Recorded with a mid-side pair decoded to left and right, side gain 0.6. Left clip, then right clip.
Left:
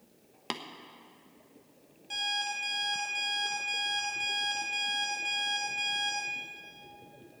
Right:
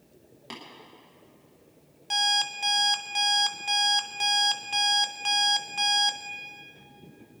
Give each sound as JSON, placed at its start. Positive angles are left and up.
{"t": 0.5, "sound": "tapping", "azimuth_deg": 50, "distance_m": 1.3}
{"t": 2.1, "sound": "an alarm clock", "azimuth_deg": -55, "distance_m": 1.6}